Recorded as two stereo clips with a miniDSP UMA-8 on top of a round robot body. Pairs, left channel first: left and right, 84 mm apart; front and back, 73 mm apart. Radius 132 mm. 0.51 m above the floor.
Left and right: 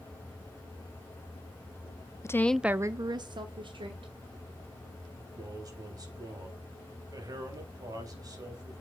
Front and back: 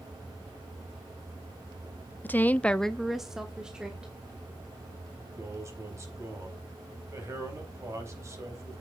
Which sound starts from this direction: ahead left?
A woman speaking, at 2.2 s.